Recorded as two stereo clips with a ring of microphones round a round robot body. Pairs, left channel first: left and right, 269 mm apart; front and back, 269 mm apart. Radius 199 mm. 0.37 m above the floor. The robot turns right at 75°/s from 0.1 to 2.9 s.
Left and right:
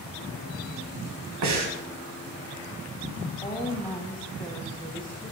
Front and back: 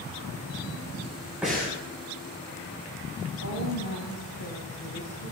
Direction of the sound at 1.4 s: 95° right.